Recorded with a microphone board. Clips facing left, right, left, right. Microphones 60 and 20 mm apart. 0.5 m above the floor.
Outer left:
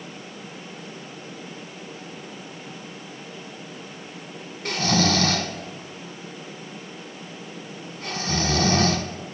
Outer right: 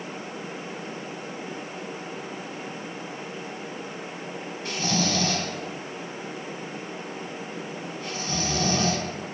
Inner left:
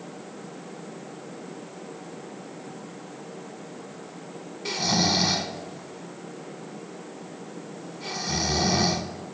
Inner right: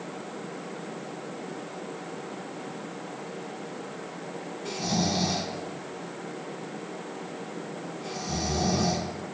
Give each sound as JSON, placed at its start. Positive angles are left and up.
{"t": 4.7, "sound": "snoring", "side_deg": 65, "distance_m": 0.7}